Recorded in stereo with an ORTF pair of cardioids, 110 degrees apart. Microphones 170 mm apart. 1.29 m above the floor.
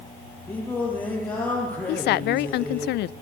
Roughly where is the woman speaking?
Left.